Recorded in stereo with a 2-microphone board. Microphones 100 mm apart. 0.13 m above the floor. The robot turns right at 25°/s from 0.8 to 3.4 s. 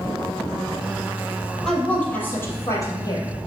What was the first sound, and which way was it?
A woman speaking, 5° left.